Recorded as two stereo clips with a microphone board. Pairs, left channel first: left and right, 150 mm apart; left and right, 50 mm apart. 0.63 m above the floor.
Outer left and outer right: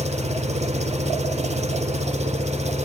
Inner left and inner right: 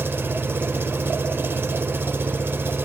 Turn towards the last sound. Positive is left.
turn(degrees=-45)  # may be behind; listen again after turning